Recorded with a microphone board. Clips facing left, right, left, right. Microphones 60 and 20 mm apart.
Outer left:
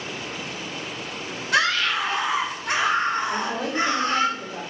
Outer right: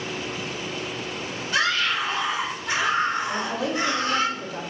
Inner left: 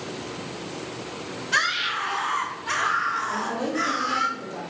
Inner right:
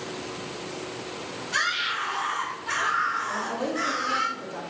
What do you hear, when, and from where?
1.5 s a scream: 65° left (ahead or behind), 1.8 m; by 4.3 s 30° left (ahead or behind), 1.6 m
3.3 s a woman speaking: 10° left (ahead or behind), 2 m